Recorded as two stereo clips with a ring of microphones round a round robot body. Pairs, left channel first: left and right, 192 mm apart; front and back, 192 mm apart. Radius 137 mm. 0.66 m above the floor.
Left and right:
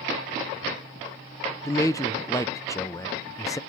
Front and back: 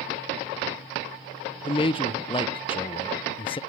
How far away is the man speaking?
About 0.5 m.